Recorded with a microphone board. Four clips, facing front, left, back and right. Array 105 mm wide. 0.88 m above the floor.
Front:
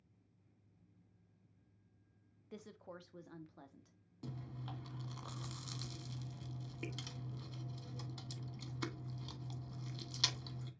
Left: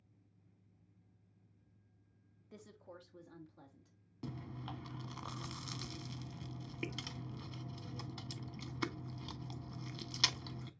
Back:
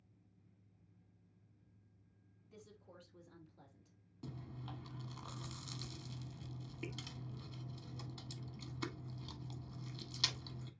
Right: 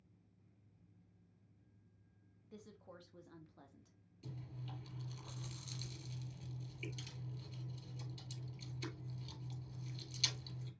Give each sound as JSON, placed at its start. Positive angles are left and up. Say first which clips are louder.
{"t": 2.5, "sound": "a woman speaking", "louder": "left 2 dB, front 7 dB", "azimuth_deg": 15, "distance_m": 0.9}
{"t": 4.2, "sound": "chewing", "louder": "left 6 dB, front 1 dB", "azimuth_deg": 80, "distance_m": 0.7}